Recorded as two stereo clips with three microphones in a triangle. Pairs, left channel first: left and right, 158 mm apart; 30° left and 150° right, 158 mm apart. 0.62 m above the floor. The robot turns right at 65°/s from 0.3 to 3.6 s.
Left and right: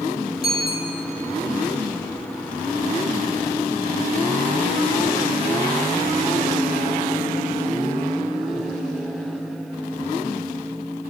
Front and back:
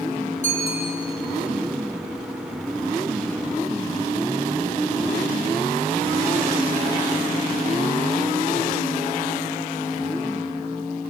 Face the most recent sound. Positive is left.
turn(degrees=-85)